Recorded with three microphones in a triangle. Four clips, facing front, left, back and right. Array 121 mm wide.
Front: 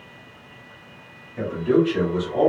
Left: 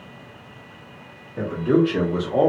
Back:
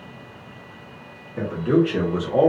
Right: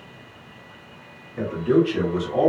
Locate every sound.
1.4 s a man speaking: 140° left, 1.6 m; by 2.5 s 130° left, 1.1 m